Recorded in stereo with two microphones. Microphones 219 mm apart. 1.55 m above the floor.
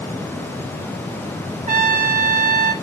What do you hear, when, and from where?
1.7 s a trumpet: 35° right (ahead or behind), 1.7 m